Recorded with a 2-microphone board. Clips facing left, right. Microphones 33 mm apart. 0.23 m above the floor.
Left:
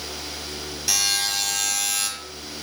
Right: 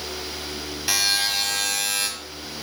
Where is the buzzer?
25° right (ahead or behind), 1.0 m.